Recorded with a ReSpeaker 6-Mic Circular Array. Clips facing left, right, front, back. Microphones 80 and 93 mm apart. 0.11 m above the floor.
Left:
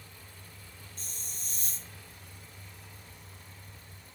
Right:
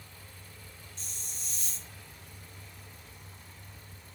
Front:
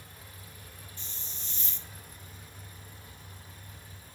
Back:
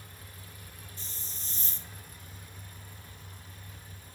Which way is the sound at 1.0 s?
130° left.